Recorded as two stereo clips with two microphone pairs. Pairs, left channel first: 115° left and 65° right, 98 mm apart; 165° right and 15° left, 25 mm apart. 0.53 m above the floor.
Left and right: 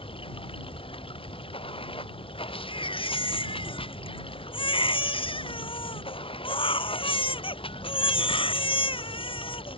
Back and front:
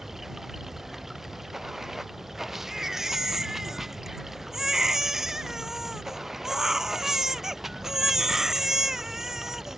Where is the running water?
95° left.